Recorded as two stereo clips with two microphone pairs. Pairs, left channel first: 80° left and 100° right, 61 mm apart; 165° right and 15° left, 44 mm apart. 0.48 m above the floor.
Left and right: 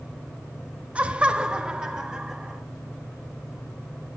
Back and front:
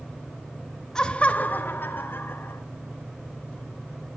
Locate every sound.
0.9 s laughter: 120° right, 0.7 m; by 2.6 s 175° left, 1.9 m